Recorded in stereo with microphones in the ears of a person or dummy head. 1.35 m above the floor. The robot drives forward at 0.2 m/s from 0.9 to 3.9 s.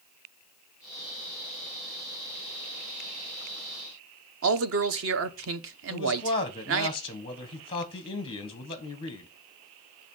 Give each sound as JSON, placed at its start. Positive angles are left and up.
{"t": 4.4, "sound": "a man speaking", "side_deg": -70, "distance_m": 0.7}
{"t": 5.9, "sound": "a man speaking", "side_deg": 25, "distance_m": 1.1}